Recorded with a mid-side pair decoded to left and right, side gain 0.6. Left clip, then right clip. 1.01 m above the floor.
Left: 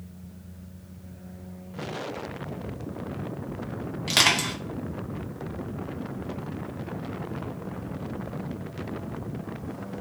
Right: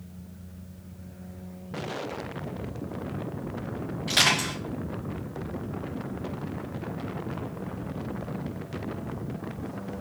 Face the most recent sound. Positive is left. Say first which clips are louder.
# left 1 dB
turn(degrees=40)